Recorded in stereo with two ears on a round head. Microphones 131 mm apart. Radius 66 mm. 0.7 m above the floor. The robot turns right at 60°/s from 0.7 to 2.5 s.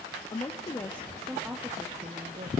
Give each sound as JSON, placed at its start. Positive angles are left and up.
{"t": 0.3, "sound": "a woman speaking", "azimuth_deg": 145, "distance_m": 0.6}